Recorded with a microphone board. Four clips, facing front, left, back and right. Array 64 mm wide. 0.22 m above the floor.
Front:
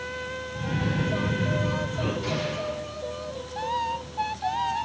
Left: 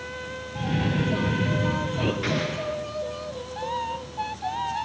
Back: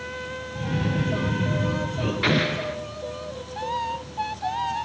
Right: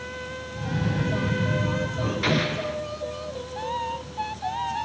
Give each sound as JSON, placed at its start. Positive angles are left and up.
{"t": 0.6, "sound": "a cough", "azimuth_deg": 95, "distance_m": 6.0}
{"t": 2.2, "sound": "an explosion", "azimuth_deg": -170, "distance_m": 2.5}